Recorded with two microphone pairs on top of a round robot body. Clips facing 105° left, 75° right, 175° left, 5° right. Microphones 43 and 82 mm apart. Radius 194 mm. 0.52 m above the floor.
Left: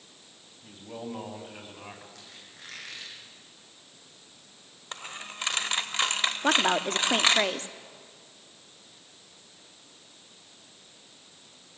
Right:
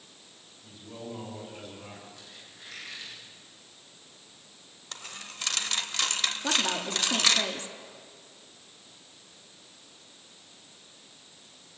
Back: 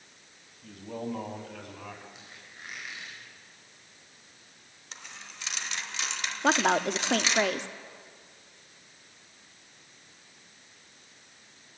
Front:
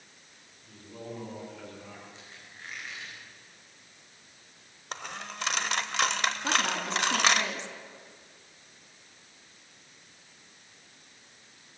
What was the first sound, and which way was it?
A man speaking, 150° left.